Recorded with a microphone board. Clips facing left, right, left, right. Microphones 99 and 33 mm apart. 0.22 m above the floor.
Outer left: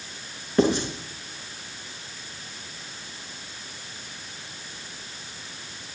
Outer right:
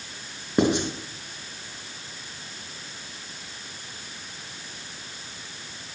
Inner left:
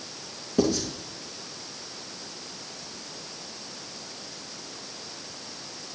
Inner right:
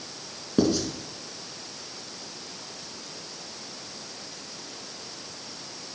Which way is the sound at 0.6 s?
15° right (ahead or behind).